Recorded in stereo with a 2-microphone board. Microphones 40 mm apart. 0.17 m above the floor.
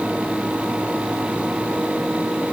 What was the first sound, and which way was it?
Only background noise.